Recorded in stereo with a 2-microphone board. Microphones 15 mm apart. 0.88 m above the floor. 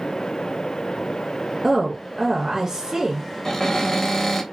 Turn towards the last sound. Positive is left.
turn(degrees=35)  # may be behind; listen again after turning